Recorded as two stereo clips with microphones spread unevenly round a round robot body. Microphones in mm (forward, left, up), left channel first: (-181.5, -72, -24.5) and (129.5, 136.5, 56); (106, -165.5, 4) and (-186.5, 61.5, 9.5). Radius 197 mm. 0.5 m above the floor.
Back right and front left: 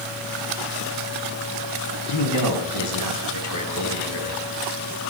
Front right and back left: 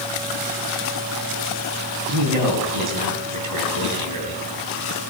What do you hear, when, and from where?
2.1 s a man speaking: 175° left, 3.5 m